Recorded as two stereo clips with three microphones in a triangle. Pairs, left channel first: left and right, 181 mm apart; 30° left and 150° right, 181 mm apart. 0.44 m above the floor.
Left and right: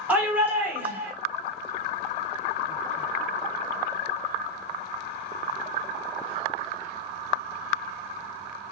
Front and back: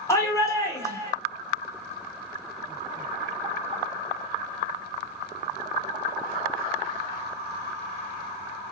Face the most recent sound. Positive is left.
turn(degrees=-20)